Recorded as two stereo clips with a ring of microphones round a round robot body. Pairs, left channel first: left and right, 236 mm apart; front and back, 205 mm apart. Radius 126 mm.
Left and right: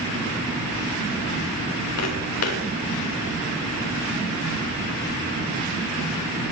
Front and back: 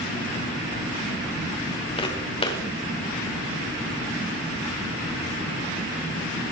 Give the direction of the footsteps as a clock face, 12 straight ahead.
10 o'clock.